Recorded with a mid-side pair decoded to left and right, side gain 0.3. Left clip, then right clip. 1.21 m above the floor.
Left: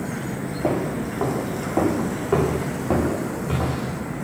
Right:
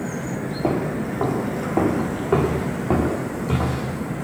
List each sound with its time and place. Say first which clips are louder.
0.6 s footsteps: even; 15° right, 6 m